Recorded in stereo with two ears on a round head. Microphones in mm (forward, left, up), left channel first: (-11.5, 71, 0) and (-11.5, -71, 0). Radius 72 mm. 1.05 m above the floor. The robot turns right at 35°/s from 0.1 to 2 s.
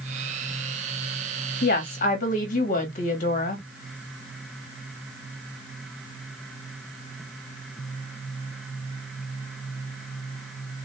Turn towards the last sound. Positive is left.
turn(degrees=55)  # may be behind; listen again after turning